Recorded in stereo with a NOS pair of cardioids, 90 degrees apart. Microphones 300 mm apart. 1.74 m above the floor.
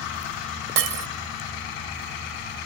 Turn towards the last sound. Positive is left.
turn(degrees=-55)